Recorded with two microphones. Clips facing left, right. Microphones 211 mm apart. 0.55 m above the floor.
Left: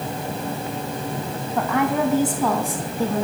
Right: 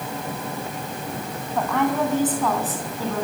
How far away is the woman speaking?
About 3.5 m.